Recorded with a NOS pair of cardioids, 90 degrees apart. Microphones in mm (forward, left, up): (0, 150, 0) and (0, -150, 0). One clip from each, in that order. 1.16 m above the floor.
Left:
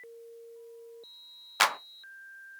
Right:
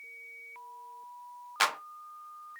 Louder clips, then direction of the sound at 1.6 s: Left 3 dB; 20° left.